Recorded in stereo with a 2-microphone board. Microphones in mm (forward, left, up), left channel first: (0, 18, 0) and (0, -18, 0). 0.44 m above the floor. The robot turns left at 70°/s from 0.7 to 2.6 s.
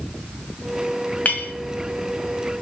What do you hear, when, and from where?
1.2 s a clink: 40° left (ahead or behind), 1.9 m; by 1.5 s 55° left (ahead or behind), 1.9 m